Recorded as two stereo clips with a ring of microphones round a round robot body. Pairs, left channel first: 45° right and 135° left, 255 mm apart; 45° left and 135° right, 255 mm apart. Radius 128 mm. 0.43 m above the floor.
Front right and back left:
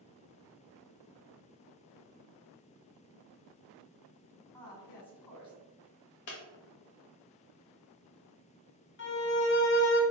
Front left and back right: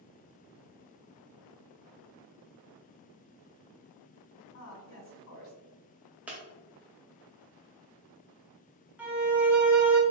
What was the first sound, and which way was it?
A woman speaking, 25° left.